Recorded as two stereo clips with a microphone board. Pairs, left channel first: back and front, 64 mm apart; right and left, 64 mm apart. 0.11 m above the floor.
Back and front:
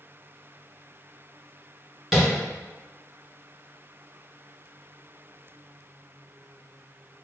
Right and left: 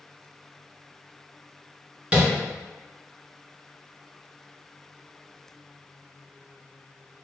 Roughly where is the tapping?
Left.